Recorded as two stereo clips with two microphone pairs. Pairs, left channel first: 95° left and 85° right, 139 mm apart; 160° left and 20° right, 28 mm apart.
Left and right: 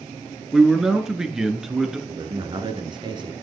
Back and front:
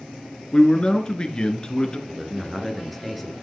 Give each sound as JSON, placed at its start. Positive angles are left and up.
{"t": 0.5, "sound": "a man speaking", "azimuth_deg": -165, "distance_m": 1.8}
{"t": 2.1, "sound": "a man speaking", "azimuth_deg": -115, "distance_m": 1.8}